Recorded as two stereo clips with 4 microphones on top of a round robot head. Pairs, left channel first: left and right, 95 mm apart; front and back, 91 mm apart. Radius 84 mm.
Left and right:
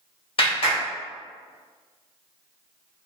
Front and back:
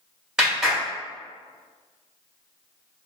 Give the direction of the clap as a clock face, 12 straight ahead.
9 o'clock.